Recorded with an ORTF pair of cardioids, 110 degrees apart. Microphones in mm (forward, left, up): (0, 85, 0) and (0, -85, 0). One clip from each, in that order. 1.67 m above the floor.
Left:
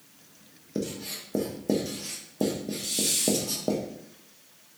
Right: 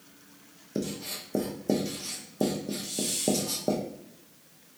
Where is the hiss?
55° left, 0.6 m.